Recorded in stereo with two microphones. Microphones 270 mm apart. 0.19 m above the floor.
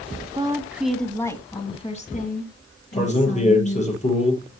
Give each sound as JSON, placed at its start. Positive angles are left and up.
{"t": 0.3, "sound": "a woman speaking", "side_deg": -15, "distance_m": 1.5}
{"t": 2.9, "sound": "a man speaking", "side_deg": 25, "distance_m": 6.0}